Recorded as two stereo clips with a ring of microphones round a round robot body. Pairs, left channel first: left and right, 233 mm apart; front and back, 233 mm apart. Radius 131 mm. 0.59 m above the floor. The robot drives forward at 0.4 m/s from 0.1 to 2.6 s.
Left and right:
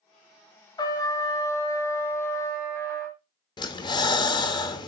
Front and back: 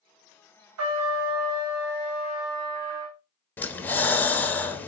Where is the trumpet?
165° left, 1.5 m; by 3.2 s 170° left, 2 m.